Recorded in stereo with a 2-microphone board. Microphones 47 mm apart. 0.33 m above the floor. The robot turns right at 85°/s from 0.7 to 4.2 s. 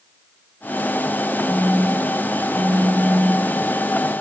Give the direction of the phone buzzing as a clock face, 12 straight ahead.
7 o'clock.